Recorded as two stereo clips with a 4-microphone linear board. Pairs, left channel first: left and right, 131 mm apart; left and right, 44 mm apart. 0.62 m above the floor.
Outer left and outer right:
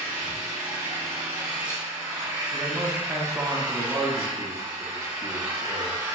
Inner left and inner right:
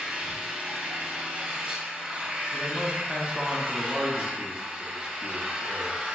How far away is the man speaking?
About 0.6 m.